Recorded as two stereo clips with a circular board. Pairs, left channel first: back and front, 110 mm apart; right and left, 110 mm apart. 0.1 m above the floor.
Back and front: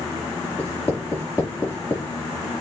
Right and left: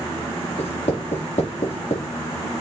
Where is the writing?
105° right, 5.5 m.